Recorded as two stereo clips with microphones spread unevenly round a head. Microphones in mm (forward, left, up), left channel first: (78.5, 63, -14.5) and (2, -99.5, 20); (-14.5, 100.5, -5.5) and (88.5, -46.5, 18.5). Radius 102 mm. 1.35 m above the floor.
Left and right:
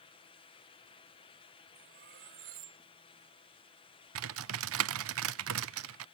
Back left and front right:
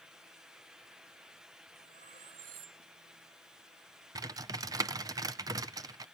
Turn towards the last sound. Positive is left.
turn(degrees=-130)